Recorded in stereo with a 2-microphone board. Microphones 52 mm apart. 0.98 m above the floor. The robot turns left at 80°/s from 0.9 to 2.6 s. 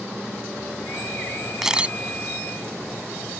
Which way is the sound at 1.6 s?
5° right (ahead or behind).